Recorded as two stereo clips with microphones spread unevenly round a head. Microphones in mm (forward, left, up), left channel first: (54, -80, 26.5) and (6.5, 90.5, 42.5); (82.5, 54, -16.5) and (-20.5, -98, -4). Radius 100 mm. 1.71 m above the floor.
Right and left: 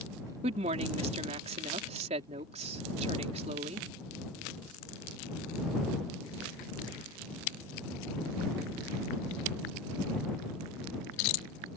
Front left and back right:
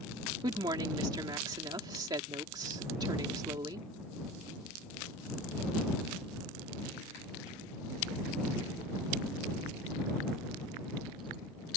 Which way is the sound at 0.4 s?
165° left.